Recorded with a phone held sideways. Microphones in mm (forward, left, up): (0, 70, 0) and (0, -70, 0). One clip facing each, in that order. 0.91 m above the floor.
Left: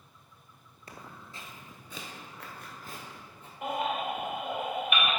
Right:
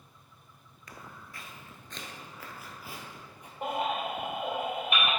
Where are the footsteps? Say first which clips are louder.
Left 1 dB; 35° left (ahead or behind), 1.0 m; by 3.5 s 15° right (ahead or behind), 1.8 m.